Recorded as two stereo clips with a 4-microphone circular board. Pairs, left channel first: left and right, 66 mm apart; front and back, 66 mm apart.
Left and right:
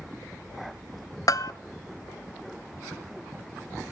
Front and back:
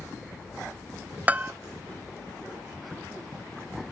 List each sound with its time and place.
1.3 s a bell: 115° left, 0.7 m